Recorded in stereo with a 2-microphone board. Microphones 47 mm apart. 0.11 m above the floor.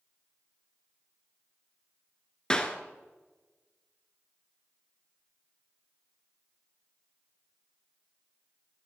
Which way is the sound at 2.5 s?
15° left (ahead or behind).